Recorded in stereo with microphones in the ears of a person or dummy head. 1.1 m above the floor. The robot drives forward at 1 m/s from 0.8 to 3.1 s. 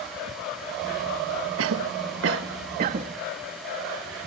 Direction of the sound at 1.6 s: 75° right (ahead or behind).